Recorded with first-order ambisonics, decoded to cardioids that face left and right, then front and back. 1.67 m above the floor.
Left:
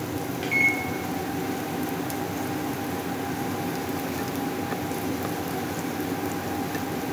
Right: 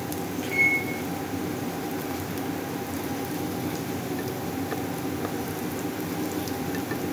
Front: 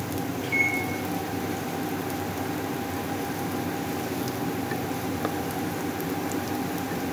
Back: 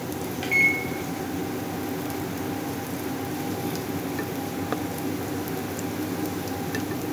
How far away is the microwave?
About 0.6 m.